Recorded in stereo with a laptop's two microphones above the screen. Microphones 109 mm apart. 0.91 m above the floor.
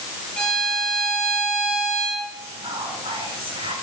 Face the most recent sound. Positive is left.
turn(degrees=-50)  # may be behind; listen again after turning